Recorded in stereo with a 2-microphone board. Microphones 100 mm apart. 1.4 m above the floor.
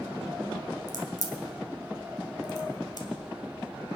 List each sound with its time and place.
0.9 s a crack: 45° left (ahead or behind), 2 m